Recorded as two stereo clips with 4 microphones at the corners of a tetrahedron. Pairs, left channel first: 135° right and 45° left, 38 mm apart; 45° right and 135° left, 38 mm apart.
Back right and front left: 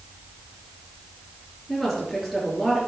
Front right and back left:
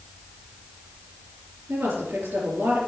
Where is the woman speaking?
140° left, 4.5 m.